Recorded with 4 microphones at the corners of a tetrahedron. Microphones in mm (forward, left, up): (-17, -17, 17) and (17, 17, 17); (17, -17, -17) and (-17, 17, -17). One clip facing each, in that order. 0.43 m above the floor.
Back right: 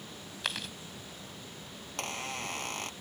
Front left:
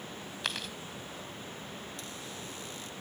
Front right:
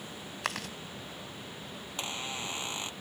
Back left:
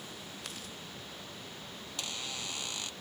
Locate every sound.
0.4 s chewing: 45° right
1.8 s a squeak: 110° right